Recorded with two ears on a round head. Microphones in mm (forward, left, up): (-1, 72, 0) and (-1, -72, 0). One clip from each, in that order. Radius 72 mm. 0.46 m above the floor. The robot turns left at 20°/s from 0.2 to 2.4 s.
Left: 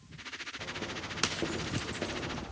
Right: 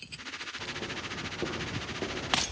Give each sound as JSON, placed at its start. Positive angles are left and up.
{"t": 0.6, "sound": "footsteps", "side_deg": 15, "distance_m": 9.5}